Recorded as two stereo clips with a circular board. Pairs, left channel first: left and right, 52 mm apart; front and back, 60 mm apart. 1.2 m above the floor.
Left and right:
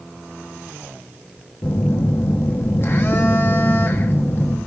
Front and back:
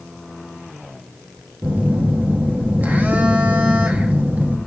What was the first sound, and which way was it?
A phone buzzing, 120° left.